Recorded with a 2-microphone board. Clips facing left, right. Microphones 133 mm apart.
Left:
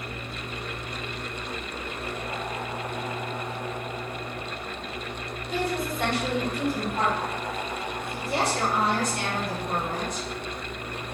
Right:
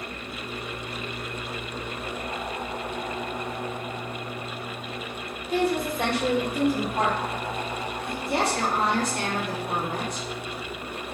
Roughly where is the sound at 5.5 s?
Right.